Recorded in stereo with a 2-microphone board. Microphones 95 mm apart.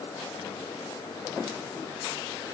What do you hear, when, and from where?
Only background noise.